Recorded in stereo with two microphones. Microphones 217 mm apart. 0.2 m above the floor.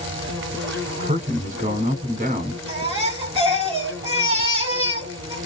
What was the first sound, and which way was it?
An insect, 65° right (ahead or behind).